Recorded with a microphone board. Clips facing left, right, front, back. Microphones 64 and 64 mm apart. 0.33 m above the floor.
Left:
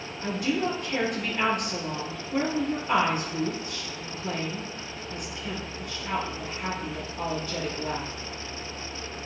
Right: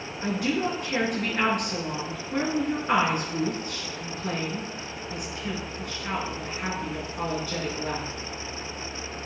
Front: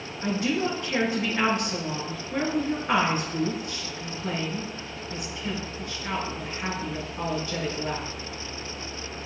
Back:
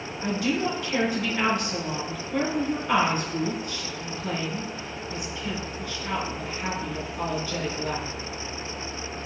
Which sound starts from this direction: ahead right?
A woman speaking, at 0.2 s.